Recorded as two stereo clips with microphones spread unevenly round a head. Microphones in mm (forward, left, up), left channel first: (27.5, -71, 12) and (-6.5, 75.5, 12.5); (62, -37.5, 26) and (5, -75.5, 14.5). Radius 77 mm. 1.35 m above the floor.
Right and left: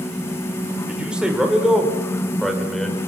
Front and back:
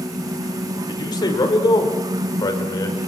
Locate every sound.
0.9 s a man speaking: 20° left, 6 m; by 3.0 s 10° left, 6.5 m